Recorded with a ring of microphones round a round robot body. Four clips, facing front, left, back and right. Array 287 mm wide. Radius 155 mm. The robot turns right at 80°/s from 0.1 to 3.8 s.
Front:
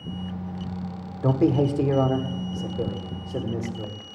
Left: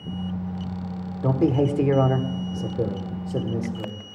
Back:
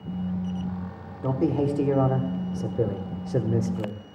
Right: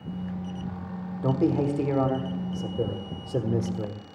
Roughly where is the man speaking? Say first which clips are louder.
Left 3 dB, front 3 dB; ahead left.